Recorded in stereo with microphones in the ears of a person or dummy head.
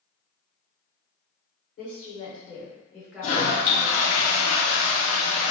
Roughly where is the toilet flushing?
Left.